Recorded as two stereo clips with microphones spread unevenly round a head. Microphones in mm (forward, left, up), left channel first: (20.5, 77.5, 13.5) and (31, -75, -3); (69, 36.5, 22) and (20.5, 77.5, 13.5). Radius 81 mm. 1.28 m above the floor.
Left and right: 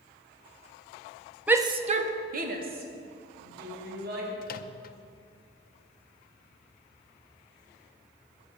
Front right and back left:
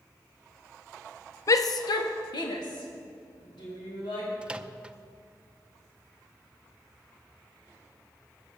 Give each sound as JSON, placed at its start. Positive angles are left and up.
{"t": 1.5, "sound": "a shout", "azimuth_deg": -10, "distance_m": 0.6}
{"t": 4.4, "sound": "a microwave", "azimuth_deg": 65, "distance_m": 0.7}